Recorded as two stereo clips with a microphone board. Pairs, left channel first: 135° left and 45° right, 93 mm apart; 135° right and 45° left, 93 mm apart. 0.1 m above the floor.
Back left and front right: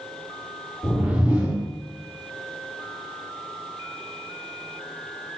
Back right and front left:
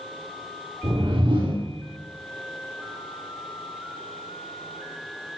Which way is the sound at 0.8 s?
25° left.